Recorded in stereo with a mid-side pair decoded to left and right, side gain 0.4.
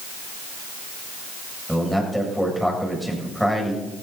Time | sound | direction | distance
1.7 | a man speaking | straight ahead | 7.5 m